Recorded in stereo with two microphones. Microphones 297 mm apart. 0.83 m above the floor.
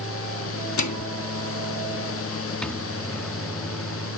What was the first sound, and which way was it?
A microwave, 70° left (ahead or behind).